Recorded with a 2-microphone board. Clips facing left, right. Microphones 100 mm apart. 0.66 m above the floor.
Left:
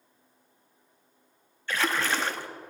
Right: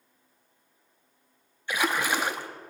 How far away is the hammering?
No hammering in this recording.